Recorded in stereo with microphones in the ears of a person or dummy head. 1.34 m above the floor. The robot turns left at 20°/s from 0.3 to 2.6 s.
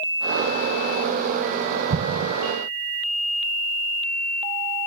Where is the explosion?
60° right (ahead or behind), 1.1 m; by 2.3 s 65° right (ahead or behind), 1.1 m.